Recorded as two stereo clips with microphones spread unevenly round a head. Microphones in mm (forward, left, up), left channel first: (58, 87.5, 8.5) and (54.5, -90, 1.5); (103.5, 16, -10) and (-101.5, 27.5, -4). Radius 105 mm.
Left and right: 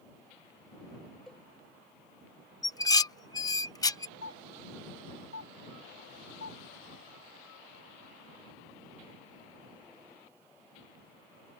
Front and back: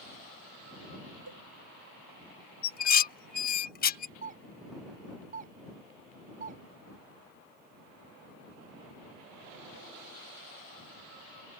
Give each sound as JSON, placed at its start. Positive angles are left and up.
{"t": 1.3, "sound": "a cowbell", "azimuth_deg": 175}
{"t": 2.6, "sound": "dishes clattering", "azimuth_deg": 25}
{"t": 4.2, "sound": "a doorbell", "azimuth_deg": 125}